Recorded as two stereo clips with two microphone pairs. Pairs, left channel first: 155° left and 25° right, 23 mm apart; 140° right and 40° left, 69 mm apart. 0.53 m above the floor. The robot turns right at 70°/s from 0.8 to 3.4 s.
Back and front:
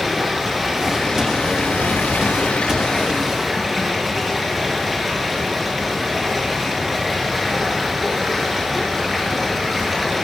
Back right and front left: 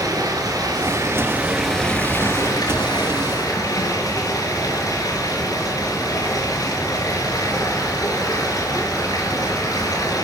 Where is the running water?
65° left, 4.5 m; by 10.2 s 110° right, 4.5 m.